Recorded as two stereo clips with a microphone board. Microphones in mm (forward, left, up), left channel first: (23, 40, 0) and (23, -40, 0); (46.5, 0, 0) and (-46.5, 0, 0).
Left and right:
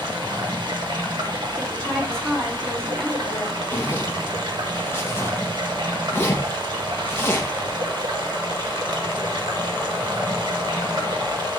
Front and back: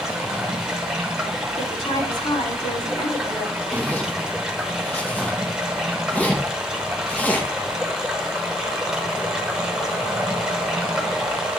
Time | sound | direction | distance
0.0 | running water | 100° right | 1.5 m
1.6 | a woman speaking | 10° left | 4 m
3.7 | a zipper | 65° left | 0.9 m